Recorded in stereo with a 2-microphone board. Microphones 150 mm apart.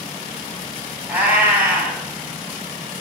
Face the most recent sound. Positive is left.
turn(degrees=-10)  # may be behind; listen again after turning